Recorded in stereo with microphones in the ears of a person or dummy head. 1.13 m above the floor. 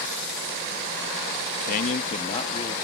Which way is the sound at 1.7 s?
50° left (ahead or behind).